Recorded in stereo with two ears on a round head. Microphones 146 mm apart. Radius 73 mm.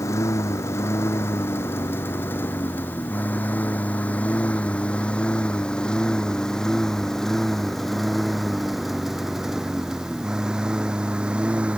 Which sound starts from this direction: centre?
A lawn mower, at 0.0 s.